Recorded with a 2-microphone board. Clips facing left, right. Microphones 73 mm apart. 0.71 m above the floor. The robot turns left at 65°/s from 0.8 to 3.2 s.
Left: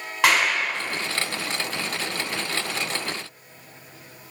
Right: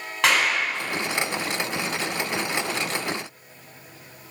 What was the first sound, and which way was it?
A clap, 5° left (ahead or behind).